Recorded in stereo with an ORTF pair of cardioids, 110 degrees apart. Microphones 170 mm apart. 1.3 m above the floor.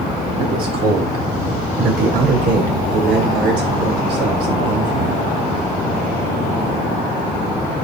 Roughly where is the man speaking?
Ahead right.